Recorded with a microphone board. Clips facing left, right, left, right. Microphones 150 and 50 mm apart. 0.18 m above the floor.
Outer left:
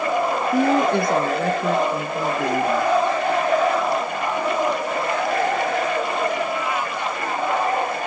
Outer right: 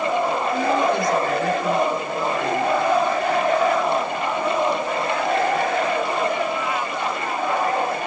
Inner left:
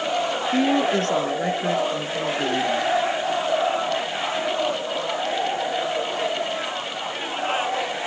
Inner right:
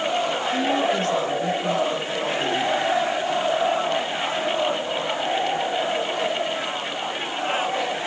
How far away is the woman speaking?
About 2 m.